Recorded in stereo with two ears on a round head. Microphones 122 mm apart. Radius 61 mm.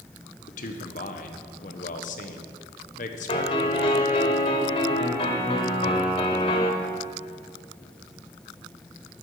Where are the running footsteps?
No running footsteps in this recording.